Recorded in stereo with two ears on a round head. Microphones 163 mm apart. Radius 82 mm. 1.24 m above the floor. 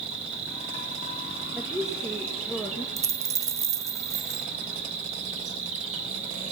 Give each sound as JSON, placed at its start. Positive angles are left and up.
{"t": 0.0, "sound": "an insect", "side_deg": -40, "distance_m": 3.0}
{"t": 1.5, "sound": "a woman speaking", "side_deg": 0, "distance_m": 2.0}
{"t": 3.0, "sound": "a dropped coin", "side_deg": -20, "distance_m": 0.6}